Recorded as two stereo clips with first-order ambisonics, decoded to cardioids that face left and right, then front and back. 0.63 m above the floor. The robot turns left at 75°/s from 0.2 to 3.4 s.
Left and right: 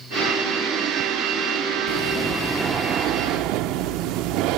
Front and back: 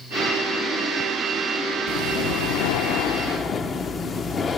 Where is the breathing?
45° left, 0.6 m; by 4.6 s 70° right, 0.6 m.